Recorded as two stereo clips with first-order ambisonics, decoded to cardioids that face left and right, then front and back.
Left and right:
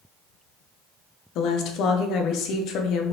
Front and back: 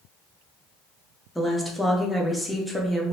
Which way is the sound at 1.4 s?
90° left.